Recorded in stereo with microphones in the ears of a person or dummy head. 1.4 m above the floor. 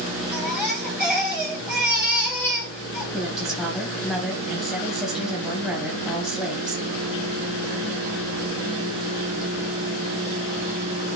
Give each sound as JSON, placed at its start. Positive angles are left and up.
{"t": 0.3, "sound": "a baby crying", "side_deg": 0, "distance_m": 1.9}
{"t": 3.1, "sound": "a woman speaking", "side_deg": 0, "distance_m": 2.0}